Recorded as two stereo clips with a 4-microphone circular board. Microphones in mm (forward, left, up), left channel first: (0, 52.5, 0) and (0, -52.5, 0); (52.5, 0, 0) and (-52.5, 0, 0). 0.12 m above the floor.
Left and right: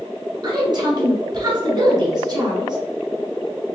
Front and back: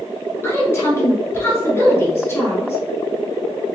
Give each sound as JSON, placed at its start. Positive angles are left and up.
{"t": 0.4, "sound": "a woman speaking", "azimuth_deg": -60, "distance_m": 1.4}